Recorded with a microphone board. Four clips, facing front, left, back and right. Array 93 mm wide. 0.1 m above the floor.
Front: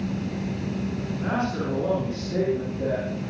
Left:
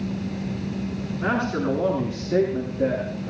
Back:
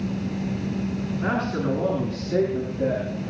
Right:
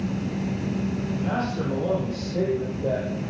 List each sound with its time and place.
1.2 s a man speaking: 110° left, 9 m; by 3.3 s 100° left, 11 m